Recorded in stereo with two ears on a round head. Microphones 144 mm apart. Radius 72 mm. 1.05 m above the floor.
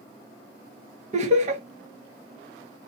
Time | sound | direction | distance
1.1 | laughter | 45° right (ahead or behind) | 0.9 m